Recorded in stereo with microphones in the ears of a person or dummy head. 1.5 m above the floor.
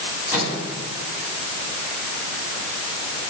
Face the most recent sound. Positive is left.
turn(degrees=-15)  # may be behind; listen again after turning